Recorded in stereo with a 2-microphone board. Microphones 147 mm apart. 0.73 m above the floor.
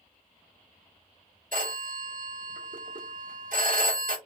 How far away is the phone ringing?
About 1.3 m.